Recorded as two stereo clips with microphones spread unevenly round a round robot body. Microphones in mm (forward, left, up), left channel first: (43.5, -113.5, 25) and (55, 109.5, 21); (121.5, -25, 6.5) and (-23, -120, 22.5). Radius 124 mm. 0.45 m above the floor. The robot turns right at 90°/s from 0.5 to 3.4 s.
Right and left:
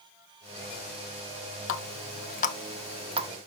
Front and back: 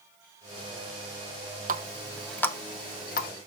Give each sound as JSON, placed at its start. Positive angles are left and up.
{"t": 1.7, "sound": "a running tap", "azimuth_deg": -110, "distance_m": 0.8}